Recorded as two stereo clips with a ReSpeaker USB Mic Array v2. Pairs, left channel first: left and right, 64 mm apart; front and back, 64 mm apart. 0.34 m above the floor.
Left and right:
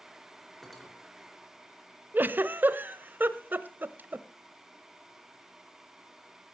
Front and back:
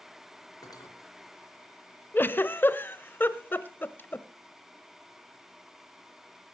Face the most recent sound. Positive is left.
turn(degrees=-45)